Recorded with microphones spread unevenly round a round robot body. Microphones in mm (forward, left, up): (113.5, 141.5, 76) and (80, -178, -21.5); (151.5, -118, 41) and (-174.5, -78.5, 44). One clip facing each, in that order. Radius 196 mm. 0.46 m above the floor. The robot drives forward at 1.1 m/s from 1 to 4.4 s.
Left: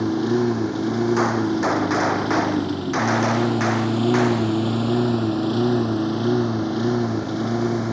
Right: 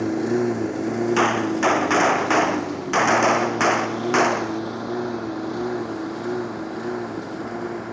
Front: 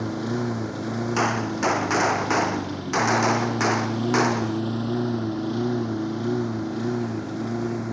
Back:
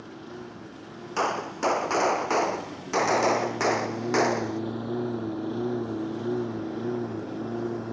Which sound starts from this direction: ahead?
A lawn mower, at 0.0 s.